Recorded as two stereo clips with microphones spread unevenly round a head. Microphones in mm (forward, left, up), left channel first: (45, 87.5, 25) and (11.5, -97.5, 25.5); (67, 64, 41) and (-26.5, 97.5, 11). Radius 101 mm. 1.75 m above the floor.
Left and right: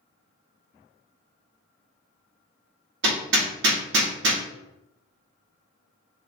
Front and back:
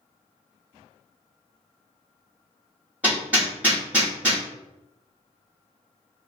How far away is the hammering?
About 0.6 m.